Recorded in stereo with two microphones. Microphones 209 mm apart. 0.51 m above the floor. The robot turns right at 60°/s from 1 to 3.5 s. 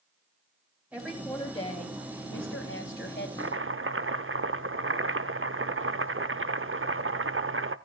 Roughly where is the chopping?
Right.